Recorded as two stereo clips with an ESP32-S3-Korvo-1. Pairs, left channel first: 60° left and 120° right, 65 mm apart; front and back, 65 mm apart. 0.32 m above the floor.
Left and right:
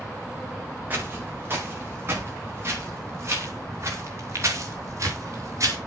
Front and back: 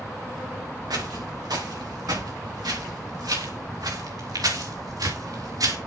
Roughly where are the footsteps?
Behind.